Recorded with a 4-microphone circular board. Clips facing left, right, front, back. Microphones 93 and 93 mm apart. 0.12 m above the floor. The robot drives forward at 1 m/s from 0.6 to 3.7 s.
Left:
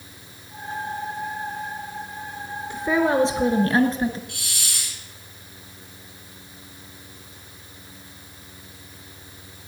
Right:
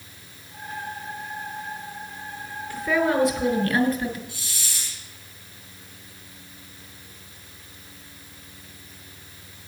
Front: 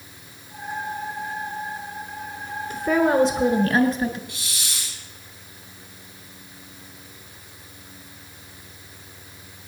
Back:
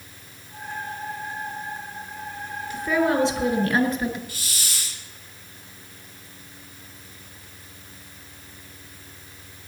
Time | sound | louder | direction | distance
2.7 | a woman speaking | left 2 dB, front 2 dB | 40° left | 1.9 m
4.3 | a hiss | left 2 dB, even | 95° left | 3 m